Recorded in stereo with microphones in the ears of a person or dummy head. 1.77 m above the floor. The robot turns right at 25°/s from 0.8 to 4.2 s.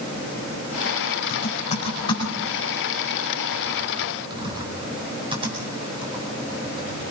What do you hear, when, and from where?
1.3 s typing on a keyboard: 45° left (ahead or behind), 5 m; by 7.0 s 25° right (ahead or behind), 5 m